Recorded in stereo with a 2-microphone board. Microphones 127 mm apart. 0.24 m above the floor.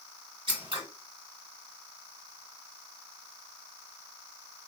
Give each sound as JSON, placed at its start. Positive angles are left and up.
{"t": 0.5, "sound": "scissors", "side_deg": -45, "distance_m": 1.8}